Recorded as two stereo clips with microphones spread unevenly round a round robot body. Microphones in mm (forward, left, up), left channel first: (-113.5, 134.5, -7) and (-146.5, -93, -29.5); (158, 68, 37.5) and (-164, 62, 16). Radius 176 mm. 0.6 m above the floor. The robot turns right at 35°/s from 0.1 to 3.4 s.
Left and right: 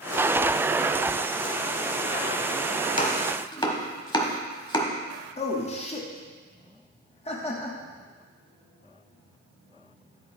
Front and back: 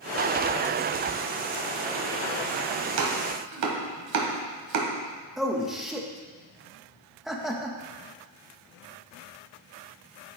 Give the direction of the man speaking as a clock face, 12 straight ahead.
9 o'clock.